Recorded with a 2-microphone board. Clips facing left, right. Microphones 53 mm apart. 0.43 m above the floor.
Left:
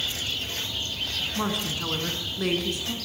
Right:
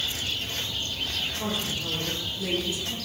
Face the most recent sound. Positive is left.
turn(degrees=50)  # may be behind; listen again after turning